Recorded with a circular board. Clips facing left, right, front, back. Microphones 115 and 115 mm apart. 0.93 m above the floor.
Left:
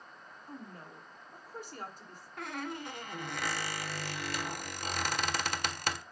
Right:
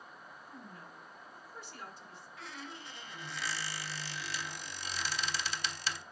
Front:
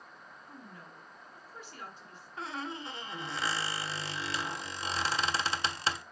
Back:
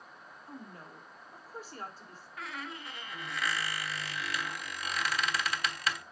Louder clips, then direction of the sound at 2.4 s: Left 9 dB, front 4 dB; 60° left.